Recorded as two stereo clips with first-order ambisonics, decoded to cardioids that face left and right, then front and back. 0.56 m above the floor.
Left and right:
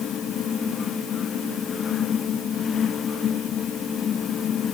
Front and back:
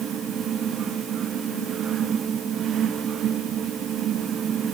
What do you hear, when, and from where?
Only background noise.